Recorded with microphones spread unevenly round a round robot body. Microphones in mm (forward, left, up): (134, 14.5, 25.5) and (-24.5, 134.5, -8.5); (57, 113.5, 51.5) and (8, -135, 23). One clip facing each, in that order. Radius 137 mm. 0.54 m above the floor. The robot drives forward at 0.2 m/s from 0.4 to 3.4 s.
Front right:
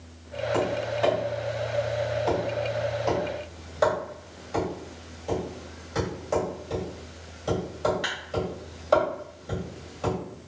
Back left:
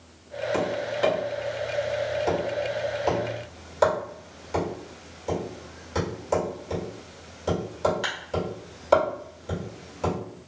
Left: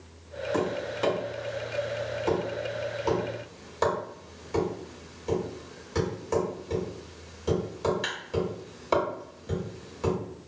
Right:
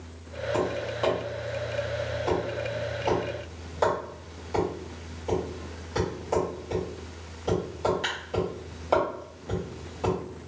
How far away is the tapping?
About 1.1 m.